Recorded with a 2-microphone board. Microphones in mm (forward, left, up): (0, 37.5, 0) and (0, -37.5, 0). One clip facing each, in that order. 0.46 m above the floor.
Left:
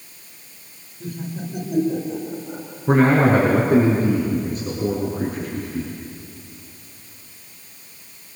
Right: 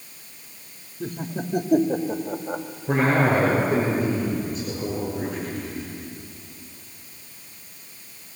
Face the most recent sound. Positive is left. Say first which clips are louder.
# left 5 dB
turn(degrees=50)  # may be behind; listen again after turning